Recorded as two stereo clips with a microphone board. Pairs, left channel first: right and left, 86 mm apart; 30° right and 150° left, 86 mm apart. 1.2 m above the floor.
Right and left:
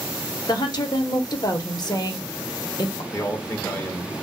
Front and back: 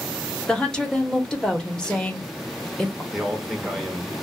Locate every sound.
0.5 s a woman speaking: 110° right, 0.8 m
3.1 s a man speaking: 120° right, 0.6 m